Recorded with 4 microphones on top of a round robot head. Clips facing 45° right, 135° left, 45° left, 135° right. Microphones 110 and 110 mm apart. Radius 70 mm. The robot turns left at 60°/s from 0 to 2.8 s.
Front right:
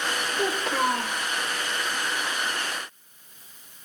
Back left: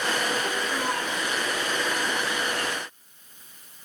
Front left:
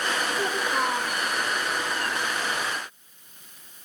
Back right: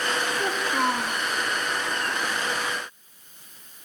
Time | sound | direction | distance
0.4 | a child speaking | 15° right | 2 m